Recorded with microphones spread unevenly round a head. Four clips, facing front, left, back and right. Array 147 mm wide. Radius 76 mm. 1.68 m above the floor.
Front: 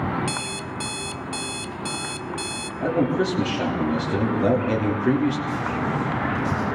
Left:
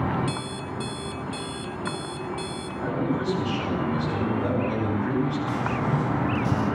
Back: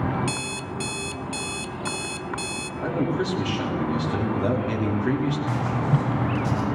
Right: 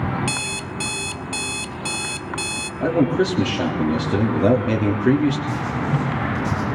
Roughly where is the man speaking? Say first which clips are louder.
Right 8 dB, front 4 dB; right.